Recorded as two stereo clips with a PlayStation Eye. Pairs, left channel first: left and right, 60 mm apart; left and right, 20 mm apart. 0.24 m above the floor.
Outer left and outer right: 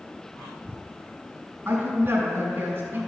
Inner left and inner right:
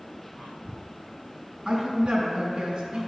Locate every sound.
1.6 s a woman speaking: 50° right (ahead or behind), 2.5 m